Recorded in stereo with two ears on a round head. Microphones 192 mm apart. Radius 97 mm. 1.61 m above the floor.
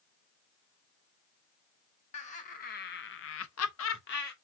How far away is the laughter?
About 1.4 m.